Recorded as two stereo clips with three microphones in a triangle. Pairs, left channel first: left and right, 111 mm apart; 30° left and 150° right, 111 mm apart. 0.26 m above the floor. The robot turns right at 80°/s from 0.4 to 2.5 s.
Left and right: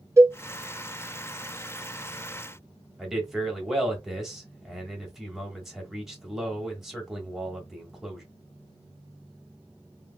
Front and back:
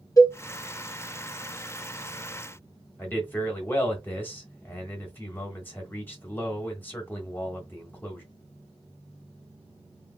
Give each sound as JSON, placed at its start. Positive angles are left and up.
{"t": 0.2, "sound": "a cowbell", "azimuth_deg": -25, "distance_m": 0.9}
{"t": 3.0, "sound": "a man speaking", "azimuth_deg": -10, "distance_m": 1.2}